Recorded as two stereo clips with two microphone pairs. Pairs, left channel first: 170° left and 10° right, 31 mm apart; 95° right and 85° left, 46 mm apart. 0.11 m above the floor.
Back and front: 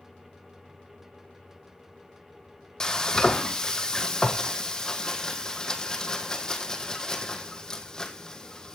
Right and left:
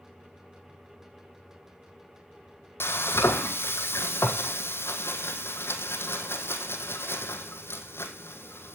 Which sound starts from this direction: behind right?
Frying, at 2.8 s.